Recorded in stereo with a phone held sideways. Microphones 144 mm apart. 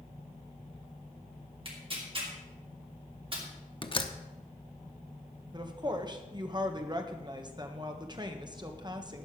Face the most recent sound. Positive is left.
turn(degrees=-30)  # may be behind; listen again after turning